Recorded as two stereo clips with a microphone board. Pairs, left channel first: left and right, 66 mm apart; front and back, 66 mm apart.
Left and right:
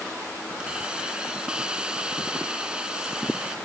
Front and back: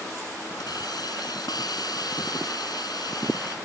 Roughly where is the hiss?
Ahead.